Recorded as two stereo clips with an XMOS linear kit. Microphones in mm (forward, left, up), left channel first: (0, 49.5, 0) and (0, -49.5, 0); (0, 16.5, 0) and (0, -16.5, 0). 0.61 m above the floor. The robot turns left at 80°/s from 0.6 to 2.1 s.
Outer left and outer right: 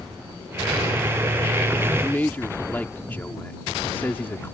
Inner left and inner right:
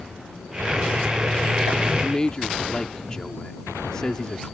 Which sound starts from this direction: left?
A man speaking, at 2.0 s.